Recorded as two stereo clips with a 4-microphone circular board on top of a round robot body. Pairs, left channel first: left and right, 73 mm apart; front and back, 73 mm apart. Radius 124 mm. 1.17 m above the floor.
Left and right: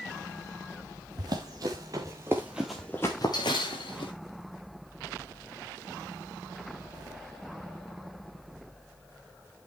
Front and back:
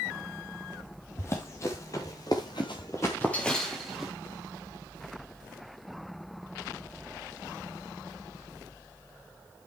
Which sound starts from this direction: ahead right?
Running footsteps, at 1.2 s.